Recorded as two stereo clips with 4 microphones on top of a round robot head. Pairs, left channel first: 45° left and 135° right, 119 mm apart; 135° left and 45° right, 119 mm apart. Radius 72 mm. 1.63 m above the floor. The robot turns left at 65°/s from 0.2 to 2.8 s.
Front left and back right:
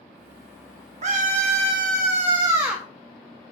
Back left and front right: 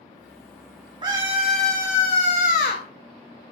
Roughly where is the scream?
Right.